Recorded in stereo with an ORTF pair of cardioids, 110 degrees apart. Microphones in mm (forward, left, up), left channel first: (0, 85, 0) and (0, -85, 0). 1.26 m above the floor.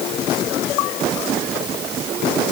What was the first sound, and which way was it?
Only background noise.